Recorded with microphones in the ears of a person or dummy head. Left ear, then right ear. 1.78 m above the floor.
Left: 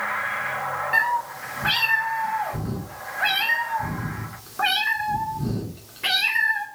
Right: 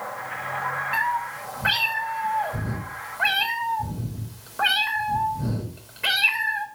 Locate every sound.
0.9 s a cat meowing: 5° right (ahead or behind), 1.9 m